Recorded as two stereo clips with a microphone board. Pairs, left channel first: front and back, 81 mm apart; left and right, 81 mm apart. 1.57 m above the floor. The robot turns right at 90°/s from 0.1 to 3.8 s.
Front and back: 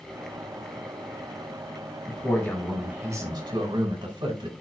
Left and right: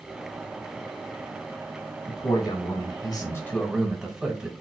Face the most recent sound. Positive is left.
turn(degrees=-170)